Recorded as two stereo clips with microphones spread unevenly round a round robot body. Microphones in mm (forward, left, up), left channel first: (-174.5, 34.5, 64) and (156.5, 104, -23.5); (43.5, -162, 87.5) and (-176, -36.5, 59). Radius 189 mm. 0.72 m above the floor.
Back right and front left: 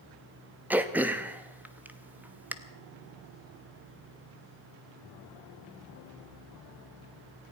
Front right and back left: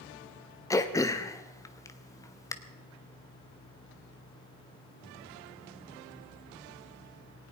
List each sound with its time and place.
0.7 s throat clearing: 45° left, 0.8 m